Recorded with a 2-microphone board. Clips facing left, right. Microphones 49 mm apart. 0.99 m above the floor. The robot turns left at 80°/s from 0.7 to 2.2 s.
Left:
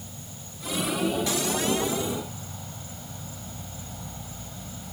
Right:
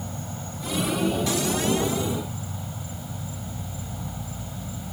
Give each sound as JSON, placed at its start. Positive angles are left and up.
{"t": 0.0, "sound": "an insect", "azimuth_deg": -50}